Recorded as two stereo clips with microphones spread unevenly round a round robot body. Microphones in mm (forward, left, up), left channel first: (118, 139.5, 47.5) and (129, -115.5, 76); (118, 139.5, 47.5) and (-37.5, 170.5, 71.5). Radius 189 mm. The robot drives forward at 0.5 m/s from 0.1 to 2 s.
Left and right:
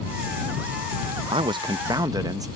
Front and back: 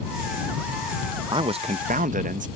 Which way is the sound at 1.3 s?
145° right.